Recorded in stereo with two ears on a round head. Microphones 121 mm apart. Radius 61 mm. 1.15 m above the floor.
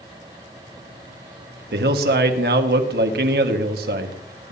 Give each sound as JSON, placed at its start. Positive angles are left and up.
{"t": 1.7, "sound": "a man speaking", "side_deg": -85, "distance_m": 1.7}